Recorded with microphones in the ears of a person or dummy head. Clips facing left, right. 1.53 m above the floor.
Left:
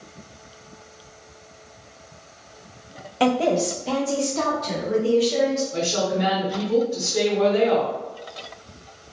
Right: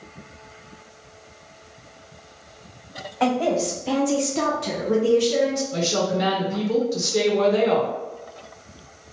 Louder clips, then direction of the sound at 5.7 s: Right 1 dB; 60° right (ahead or behind).